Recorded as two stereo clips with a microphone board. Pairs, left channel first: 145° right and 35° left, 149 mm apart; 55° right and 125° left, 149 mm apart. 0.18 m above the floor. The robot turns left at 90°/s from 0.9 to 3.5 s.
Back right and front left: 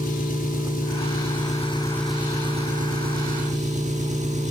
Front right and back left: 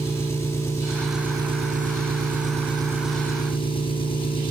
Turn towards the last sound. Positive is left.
turn(degrees=0)